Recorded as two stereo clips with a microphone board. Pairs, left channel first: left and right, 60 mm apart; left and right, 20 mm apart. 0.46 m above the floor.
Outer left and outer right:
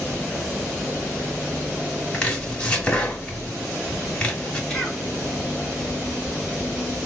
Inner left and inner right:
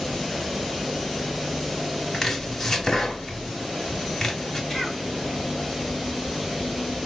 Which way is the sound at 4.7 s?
10° left (ahead or behind).